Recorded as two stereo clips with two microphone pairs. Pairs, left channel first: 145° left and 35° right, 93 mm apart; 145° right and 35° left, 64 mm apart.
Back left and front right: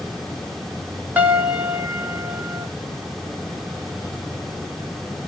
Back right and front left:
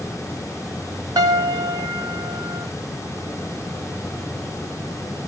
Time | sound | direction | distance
1.2 | a piano | 35° left | 0.8 m